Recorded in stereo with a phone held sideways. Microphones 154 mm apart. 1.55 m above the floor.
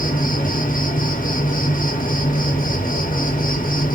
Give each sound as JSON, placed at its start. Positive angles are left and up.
{"t": 0.0, "sound": "an insect", "side_deg": 65, "distance_m": 0.9}